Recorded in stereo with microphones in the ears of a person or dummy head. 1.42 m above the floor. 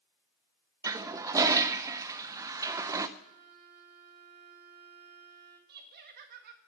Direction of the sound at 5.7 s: 50° right (ahead or behind).